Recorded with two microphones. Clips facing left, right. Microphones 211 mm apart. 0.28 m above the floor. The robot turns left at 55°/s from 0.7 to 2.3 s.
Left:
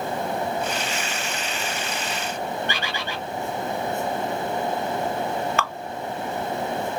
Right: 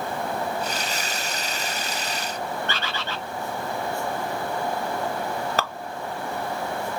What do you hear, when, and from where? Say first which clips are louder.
2.7 s a bird: left 1 dB; 15° left (ahead or behind), 0.6 m
5.6 s dripping: even; 40° right (ahead or behind), 0.6 m